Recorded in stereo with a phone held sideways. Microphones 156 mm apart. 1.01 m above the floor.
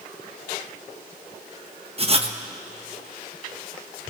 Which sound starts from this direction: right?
Writing, at 2.0 s.